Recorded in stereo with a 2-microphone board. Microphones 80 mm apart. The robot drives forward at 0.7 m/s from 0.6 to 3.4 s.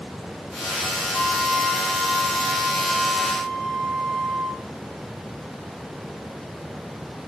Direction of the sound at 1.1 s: Centre (ahead or behind).